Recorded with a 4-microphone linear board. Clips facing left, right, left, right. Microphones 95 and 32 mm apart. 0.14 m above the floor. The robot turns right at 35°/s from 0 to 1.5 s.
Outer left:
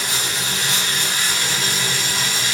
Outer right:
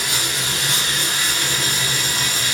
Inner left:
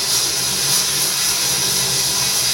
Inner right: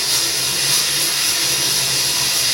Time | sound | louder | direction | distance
0.0 | running water | even, inner right 1 dB | 105° right | 2 m